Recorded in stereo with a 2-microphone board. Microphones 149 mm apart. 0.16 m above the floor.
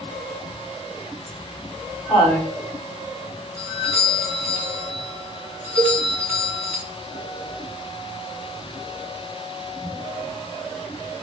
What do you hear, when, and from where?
1.3 s laughter: 10° right (ahead or behind), 1.2 m; by 2.5 s 25° left (ahead or behind), 1.2 m
3.6 s a doorbell: 15° right (ahead or behind), 1.8 m
5.8 s a cowbell: 45° right (ahead or behind), 0.5 m